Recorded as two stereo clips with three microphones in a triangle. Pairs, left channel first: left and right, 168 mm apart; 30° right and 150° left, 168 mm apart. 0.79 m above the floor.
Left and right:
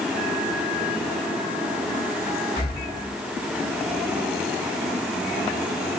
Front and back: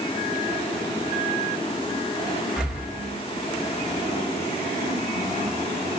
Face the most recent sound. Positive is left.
turn(degrees=65)